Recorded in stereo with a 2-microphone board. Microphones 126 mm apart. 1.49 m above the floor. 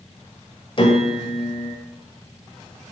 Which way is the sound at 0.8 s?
45° left (ahead or behind).